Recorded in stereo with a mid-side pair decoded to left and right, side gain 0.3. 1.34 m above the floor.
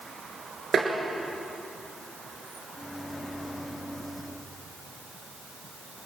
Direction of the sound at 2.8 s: 5° right.